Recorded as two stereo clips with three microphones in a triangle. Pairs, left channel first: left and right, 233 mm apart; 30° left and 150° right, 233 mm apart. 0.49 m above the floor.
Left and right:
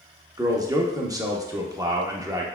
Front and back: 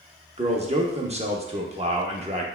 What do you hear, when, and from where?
0.4 s a man speaking: 145° right, 0.7 m